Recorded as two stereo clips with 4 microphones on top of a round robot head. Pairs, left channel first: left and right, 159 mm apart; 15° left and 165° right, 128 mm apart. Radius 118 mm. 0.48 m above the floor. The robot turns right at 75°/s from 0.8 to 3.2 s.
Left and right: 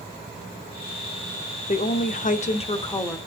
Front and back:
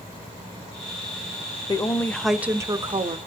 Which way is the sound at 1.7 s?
60° left.